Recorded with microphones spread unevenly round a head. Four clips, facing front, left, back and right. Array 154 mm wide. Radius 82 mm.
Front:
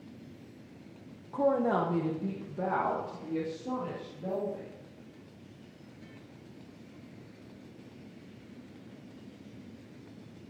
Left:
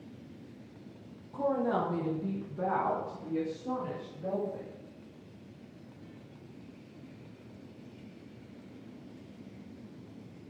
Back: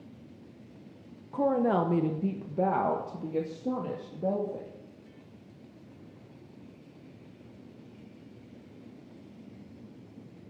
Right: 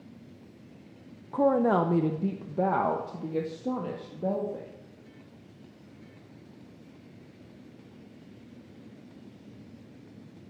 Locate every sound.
1.3 s a woman speaking: 95° right, 0.9 m; by 4.7 s 130° right, 2.5 m